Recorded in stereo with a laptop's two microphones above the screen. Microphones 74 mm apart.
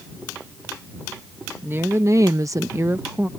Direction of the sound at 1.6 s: 30° right (ahead or behind).